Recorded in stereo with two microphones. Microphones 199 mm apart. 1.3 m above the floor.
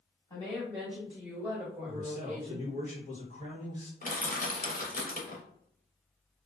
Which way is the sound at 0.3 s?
15° left (ahead or behind).